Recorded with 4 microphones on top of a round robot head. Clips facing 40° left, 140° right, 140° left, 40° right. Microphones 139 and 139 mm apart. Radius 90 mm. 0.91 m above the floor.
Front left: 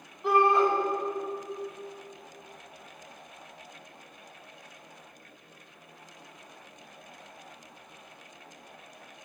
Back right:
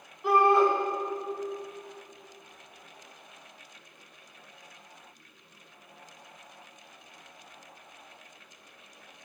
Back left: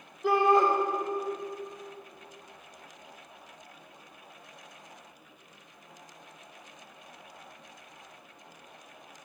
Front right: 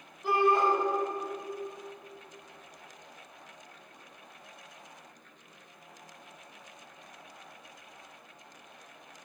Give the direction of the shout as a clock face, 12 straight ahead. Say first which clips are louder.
Back right 1 dB, back left 3 dB; 8 o'clock.